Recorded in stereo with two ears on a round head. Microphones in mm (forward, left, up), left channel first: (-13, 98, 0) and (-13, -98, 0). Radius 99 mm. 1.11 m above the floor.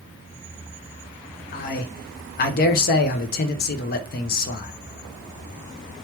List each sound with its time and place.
1.5 s a man speaking: 45° left (ahead or behind), 0.5 m